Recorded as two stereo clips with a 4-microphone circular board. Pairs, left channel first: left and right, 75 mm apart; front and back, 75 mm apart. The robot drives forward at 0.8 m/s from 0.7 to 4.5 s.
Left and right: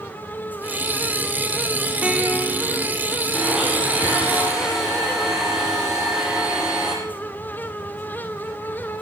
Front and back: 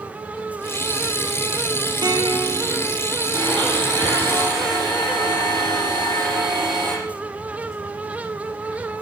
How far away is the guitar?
About 3 m.